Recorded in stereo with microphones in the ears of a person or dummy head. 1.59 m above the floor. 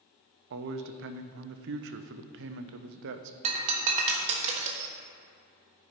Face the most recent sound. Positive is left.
turn(degrees=-40)  # may be behind; listen again after turning